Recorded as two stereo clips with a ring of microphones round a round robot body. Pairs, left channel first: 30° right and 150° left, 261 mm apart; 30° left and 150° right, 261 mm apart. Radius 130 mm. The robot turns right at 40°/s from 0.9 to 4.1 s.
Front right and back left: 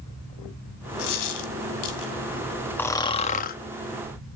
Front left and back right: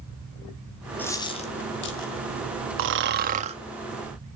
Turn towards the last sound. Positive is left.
turn(degrees=-60)